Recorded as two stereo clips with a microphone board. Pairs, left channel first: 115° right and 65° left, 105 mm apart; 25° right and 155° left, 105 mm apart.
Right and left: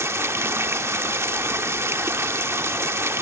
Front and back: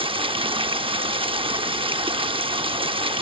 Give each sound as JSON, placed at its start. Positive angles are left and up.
{"t": 0.0, "sound": "running water", "azimuth_deg": 130, "distance_m": 0.7}